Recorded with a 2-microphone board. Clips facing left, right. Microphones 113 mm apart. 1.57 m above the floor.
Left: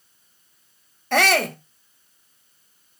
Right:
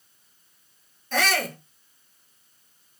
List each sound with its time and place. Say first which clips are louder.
1.1 s a shout: left 6 dB; 70° left (ahead or behind), 1.9 m